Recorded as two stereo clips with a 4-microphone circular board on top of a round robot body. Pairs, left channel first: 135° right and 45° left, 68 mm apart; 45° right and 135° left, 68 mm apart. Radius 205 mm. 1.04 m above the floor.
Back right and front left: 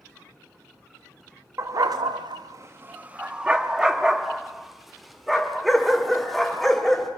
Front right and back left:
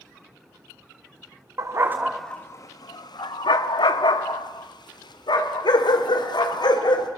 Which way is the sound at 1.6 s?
95° left.